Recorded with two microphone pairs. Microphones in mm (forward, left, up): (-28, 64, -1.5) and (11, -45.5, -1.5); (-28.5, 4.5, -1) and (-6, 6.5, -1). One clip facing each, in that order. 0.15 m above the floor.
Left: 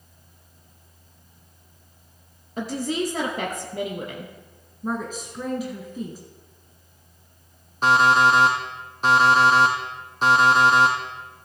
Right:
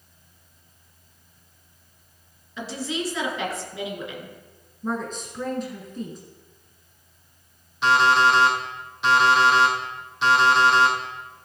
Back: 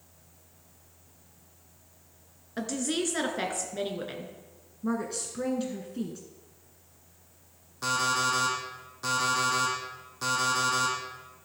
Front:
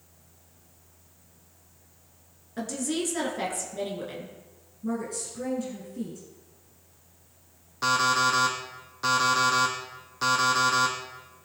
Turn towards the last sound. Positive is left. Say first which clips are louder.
# left 1 dB, front 4 dB
turn(degrees=65)